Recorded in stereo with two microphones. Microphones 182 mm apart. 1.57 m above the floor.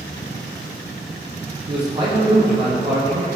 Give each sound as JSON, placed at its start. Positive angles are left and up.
{"t": 1.7, "sound": "a man speaking", "side_deg": -30, "distance_m": 0.5}